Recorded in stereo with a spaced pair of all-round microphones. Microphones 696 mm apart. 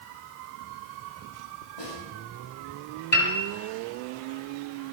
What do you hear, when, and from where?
1.8 s a snare drum: 75° left (ahead or behind), 8.5 m
3.1 s a piano: 50° left (ahead or behind), 5 m